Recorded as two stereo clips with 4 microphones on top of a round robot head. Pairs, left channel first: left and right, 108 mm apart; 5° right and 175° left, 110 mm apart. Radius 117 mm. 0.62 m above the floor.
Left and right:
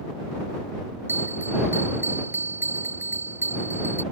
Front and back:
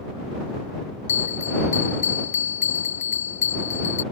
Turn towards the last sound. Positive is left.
turn(degrees=-15)